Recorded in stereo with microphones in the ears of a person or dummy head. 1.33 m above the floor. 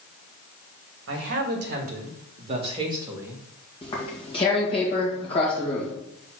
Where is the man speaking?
60° right (ahead or behind), 2 m; by 3.4 s 10° right (ahead or behind), 1.6 m.